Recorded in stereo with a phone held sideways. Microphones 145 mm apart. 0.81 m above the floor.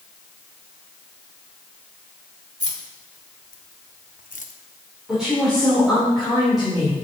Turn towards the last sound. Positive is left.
turn(degrees=-5)  # may be behind; listen again after turning